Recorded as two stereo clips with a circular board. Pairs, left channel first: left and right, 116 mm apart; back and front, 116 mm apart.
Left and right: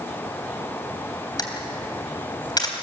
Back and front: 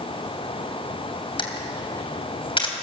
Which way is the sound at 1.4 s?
140° left.